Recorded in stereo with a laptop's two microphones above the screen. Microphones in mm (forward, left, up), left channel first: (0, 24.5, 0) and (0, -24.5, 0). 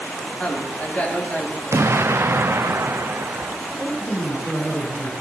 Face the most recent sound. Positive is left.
turn(degrees=10)  # may be behind; listen again after turning